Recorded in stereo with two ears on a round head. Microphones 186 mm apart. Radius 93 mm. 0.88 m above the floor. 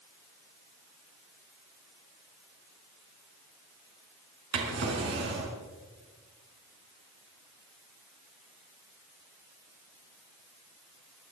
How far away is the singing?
No singing in this recording.